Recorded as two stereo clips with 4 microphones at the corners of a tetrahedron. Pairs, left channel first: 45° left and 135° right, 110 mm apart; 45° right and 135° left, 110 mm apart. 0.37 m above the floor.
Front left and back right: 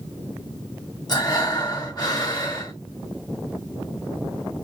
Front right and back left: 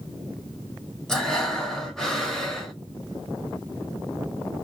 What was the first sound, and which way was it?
Breathing, 35° left.